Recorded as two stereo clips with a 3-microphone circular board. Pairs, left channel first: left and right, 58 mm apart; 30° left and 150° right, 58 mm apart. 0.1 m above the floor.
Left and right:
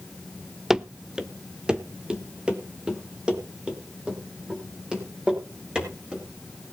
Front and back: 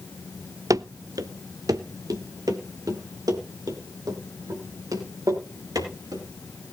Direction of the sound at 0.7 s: 175° right.